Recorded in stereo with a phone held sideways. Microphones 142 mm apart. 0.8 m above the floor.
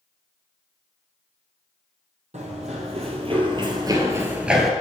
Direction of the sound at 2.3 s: 60° right (ahead or behind).